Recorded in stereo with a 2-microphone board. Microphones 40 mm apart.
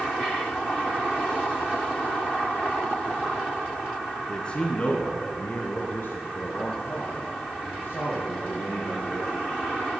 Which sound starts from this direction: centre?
A man speaking, at 4.3 s.